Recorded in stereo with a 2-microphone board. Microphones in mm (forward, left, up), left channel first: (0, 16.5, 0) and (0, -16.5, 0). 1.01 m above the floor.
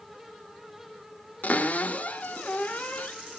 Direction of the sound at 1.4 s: 55° left (ahead or behind).